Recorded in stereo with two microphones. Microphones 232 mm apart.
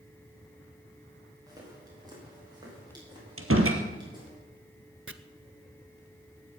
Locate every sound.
1.5 s footsteps: 15° right (ahead or behind), 8.5 m; by 4.4 s 20° right (ahead or behind), 10.5 m
3.4 s a door slam: 65° right (ahead or behind), 2.5 m
5.1 s chopping: 60° right (ahead or behind), 0.8 m